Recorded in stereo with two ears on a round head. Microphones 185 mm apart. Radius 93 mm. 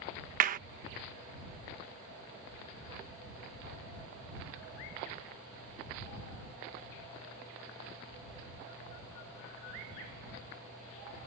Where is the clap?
40° right (ahead or behind).